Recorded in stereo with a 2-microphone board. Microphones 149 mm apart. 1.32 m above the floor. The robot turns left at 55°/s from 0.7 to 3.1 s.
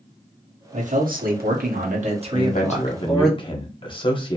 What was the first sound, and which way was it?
A man speaking, 50° right.